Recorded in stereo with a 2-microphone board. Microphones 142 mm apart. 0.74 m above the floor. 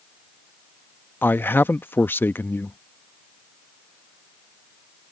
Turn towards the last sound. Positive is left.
turn(degrees=15)  # may be behind; listen again after turning